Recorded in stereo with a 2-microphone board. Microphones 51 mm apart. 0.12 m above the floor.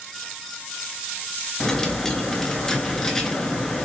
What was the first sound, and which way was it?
A dropped coin, 10° left (ahead or behind).